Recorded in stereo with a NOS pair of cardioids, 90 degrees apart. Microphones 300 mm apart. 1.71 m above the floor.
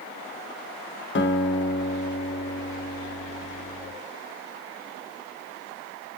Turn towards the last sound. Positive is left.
turn(degrees=40)